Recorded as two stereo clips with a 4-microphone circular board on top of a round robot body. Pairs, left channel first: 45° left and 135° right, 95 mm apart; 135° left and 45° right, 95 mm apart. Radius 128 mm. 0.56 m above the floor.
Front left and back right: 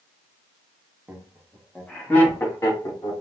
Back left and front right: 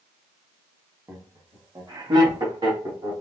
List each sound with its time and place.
1.1 s laughter: 80° right, 1.4 m; by 3.1 s 10° right, 2.5 m